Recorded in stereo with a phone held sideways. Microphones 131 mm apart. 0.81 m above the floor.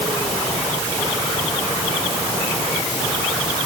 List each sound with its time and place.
Only background noise.